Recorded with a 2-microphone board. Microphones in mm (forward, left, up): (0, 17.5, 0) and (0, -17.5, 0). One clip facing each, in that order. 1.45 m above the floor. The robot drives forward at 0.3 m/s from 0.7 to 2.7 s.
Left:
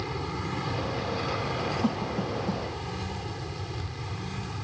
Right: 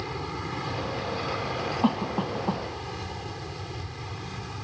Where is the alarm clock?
I don't hear an alarm clock.